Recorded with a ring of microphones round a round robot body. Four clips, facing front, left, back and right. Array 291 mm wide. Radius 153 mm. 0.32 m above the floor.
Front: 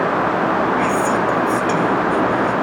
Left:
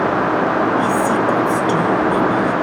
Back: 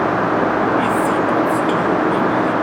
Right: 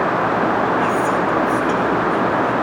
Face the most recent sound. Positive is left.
turn(degrees=80)